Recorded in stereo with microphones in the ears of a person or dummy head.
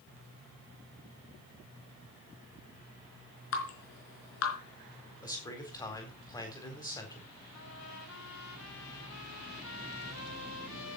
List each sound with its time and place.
3.5 s dripping: 80° left, 4 m
5.2 s a man speaking: 20° left (ahead or behind), 4 m
7.5 s a trumpet: 80° left, 2.5 m